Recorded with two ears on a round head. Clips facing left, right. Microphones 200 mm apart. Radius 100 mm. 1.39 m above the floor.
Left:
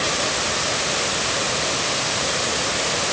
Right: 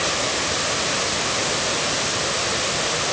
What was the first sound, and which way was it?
Only background noise.